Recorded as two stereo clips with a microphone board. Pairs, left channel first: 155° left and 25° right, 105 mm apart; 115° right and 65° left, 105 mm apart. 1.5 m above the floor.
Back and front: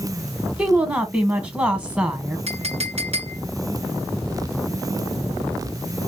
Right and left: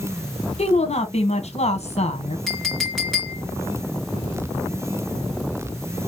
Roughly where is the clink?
Ahead.